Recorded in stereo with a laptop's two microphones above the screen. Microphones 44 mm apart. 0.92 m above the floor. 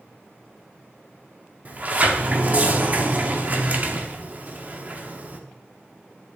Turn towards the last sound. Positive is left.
turn(degrees=-35)  # may be behind; listen again after turning